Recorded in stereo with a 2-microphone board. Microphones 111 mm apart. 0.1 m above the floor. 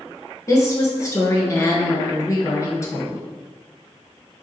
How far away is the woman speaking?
About 1.3 m.